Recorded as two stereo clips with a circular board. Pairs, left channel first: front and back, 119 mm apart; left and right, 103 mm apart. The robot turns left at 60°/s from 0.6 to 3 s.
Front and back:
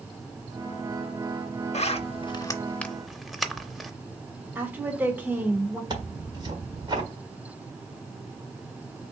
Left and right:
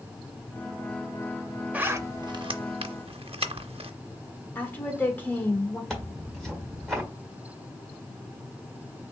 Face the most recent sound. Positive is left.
turn(degrees=175)